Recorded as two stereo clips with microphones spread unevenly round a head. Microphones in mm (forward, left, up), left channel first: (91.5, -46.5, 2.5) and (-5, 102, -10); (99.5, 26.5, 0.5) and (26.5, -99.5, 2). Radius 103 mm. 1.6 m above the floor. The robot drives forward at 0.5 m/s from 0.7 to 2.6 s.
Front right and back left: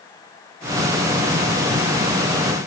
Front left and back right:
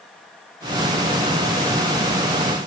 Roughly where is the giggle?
No giggle in this recording.